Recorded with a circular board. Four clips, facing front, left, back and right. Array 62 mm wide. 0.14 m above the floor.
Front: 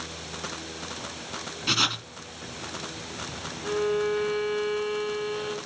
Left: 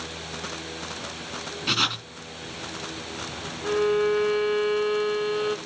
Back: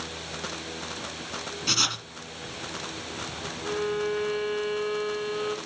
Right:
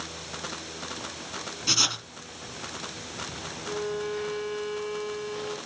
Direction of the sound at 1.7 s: 60° left.